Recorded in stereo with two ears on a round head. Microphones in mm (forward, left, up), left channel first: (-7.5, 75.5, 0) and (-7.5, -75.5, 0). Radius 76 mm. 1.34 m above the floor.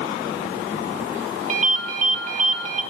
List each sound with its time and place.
1.5 s a ringtone: 45° right (ahead or behind), 2.5 m